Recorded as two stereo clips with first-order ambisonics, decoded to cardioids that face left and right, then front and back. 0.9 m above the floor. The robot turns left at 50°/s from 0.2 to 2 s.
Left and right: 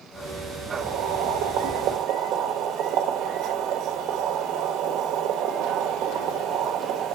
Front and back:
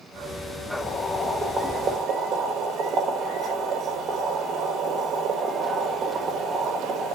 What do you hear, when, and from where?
0.7 s boiling: 60° right, 1.0 m; by 7.1 s 125° right, 1.0 m